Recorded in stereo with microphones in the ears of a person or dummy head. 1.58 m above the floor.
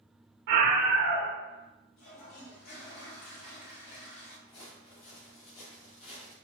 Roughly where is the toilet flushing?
Left.